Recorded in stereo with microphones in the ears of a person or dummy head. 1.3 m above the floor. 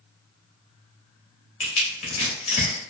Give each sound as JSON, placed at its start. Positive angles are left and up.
{"t": 1.6, "sound": "crushing", "side_deg": 40, "distance_m": 1.0}